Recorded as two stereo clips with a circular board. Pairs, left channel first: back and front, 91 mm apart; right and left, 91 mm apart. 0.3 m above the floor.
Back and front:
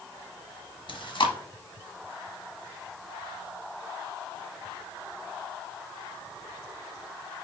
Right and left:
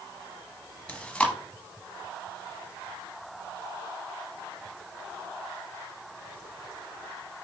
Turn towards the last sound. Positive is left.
turn(degrees=-165)